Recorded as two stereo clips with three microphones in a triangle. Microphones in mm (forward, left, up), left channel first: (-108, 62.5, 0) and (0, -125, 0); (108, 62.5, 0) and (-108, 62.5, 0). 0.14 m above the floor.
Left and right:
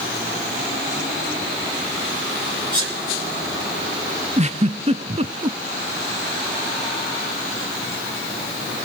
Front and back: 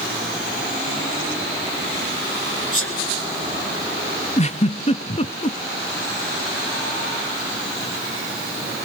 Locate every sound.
2.7 s a sneeze: 10° left, 6 m
4.4 s a giggle: 30° right, 0.6 m